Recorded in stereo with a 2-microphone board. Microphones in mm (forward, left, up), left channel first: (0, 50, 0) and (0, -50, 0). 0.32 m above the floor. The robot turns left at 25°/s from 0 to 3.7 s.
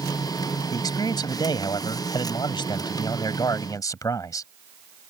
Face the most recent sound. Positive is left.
turn(degrees=50)